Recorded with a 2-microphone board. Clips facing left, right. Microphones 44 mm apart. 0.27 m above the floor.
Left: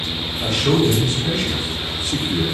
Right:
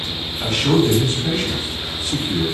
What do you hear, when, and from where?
0.4 s a man speaking: 40° right (ahead or behind), 1.9 m; by 2.4 s 15° right (ahead or behind), 1.8 m